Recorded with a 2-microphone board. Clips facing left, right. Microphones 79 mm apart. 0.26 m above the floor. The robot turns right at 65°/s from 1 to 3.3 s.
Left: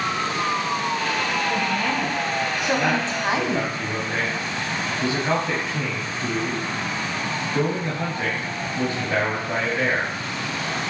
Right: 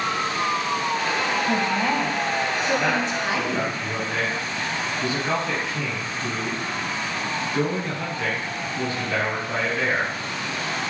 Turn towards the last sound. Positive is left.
turn(degrees=40)